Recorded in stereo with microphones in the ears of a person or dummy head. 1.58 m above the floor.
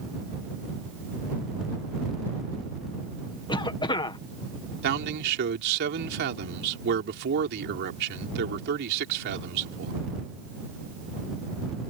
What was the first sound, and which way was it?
A cough, 25° left (ahead or behind).